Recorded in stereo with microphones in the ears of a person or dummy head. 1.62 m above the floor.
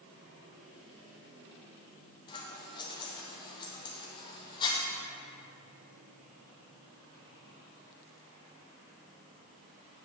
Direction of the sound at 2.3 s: 25° left (ahead or behind).